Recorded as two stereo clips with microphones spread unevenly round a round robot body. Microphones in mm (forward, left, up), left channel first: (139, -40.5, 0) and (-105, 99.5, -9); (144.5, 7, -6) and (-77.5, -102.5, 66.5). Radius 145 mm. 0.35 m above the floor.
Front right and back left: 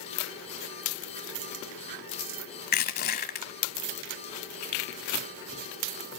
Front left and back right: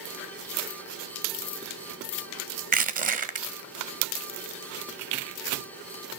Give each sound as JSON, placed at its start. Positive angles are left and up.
{"t": 2.7, "sound": "crushing", "azimuth_deg": -90, "distance_m": 1.8}